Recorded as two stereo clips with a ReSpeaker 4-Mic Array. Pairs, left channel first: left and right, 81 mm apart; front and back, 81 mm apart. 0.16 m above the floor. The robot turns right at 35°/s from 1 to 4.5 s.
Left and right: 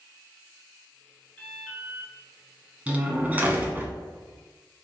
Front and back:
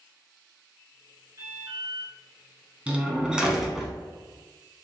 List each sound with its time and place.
1.4 s an alarm: 165° left, 1.7 m; by 2.1 s 170° right, 1.7 m
2.9 s a door slam: 130° right, 0.7 m; by 3.9 s 90° right, 0.7 m